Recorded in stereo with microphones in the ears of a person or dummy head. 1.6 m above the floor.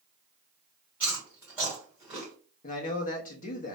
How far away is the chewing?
About 1.9 m.